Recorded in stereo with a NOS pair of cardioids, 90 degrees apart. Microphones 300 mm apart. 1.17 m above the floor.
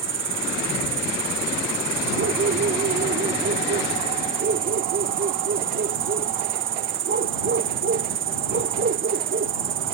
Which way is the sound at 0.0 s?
40° right.